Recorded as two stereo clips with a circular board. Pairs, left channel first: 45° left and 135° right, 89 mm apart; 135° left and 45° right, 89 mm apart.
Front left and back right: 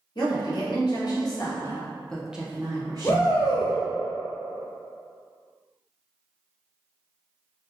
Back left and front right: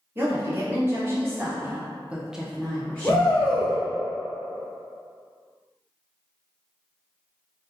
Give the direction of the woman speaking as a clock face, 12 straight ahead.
11 o'clock.